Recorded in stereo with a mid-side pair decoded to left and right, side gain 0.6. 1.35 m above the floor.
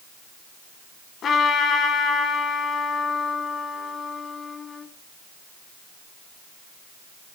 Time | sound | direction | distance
1.2 | a trumpet | 50° left | 3.5 m